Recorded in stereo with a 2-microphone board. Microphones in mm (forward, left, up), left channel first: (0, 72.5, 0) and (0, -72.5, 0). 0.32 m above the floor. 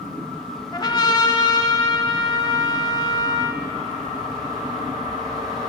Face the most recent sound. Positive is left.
turn(degrees=30)  # may be behind; listen again after turning